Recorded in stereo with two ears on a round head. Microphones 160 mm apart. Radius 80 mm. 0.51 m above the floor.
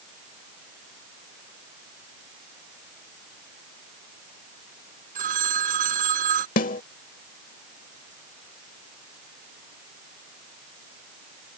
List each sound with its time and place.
5.2 s a phone ringing: 50° right (ahead or behind)
6.6 s a snare drum: 45° left (ahead or behind)